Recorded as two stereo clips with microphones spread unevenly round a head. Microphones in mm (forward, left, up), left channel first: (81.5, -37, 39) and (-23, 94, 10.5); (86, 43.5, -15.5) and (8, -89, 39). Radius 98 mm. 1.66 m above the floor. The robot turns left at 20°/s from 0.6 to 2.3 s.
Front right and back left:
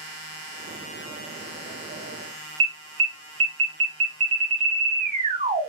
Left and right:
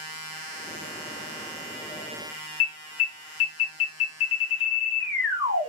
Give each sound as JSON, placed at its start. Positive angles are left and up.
{"t": 2.6, "sound": "an alarm", "azimuth_deg": 75, "distance_m": 1.2}